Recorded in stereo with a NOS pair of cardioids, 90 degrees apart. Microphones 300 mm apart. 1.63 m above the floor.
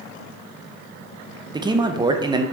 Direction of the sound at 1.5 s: 15° right.